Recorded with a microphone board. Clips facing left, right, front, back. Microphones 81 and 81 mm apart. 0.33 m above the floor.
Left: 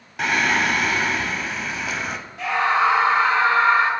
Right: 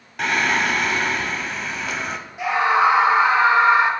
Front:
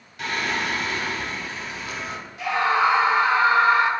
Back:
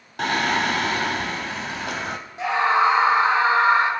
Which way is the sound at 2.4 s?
155° right.